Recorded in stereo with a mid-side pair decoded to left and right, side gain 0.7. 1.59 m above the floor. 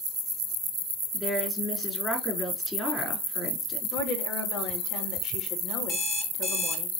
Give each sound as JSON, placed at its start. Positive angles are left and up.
{"t": 1.1, "sound": "a woman speaking", "azimuth_deg": 15, "distance_m": 4.5}
{"t": 3.9, "sound": "a woman speaking", "azimuth_deg": 55, "distance_m": 3.0}
{"t": 5.9, "sound": "an alarm clock", "azimuth_deg": 40, "distance_m": 3.0}